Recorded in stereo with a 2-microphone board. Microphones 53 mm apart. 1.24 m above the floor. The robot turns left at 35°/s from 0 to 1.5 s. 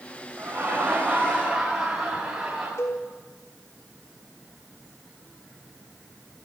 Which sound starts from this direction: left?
A cowbell, at 2.8 s.